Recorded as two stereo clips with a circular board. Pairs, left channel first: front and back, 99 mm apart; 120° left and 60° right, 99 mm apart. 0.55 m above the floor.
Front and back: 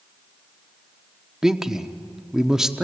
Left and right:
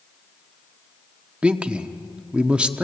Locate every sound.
1.4 s a man speaking: 110° right, 1.0 m